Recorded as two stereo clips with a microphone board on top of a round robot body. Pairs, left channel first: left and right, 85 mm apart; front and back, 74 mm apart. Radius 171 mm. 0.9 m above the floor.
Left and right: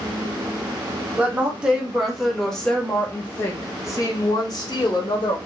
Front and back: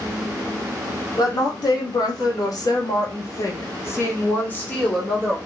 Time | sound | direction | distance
1.2 | a woman speaking | 15° right | 1.8 m